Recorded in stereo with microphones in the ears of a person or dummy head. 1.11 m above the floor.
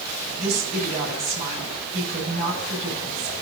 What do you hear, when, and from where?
0.4 s a woman speaking: 40° right (ahead or behind), 6 m